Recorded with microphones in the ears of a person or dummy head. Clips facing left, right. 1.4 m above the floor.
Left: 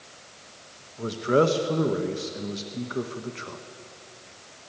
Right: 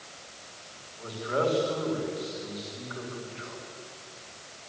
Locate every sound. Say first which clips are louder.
1.0 s a man speaking: left 7 dB; 50° left (ahead or behind), 1.7 m